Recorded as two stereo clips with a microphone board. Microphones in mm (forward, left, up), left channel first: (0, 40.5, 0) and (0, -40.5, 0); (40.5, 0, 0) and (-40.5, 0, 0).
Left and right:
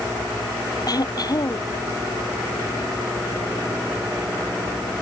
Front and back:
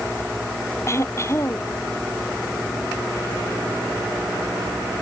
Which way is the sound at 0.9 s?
55° left.